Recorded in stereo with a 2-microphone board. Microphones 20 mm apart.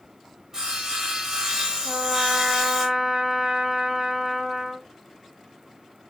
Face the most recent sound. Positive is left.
turn(degrees=-25)  # may be behind; listen again after turning